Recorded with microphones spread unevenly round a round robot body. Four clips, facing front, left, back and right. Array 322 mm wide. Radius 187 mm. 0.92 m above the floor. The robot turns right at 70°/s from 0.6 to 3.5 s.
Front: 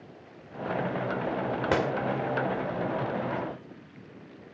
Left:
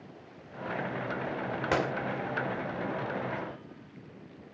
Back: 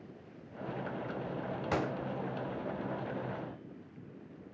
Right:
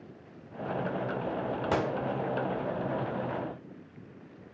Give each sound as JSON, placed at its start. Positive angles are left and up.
{"t": 1.7, "sound": "a gunshot", "azimuth_deg": 0, "distance_m": 1.5}